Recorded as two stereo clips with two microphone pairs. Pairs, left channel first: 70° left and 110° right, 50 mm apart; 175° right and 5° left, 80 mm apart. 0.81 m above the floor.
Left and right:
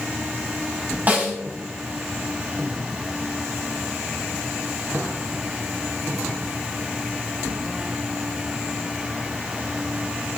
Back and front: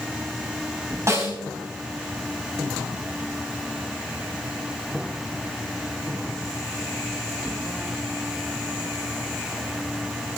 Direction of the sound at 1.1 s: 50° right.